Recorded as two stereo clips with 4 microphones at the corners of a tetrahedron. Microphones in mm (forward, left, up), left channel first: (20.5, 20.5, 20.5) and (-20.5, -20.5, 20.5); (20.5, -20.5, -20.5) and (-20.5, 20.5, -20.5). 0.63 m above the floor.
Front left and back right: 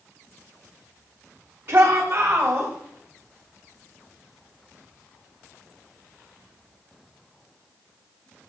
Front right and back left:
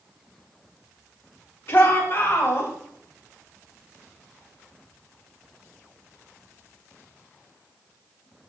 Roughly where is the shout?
Right.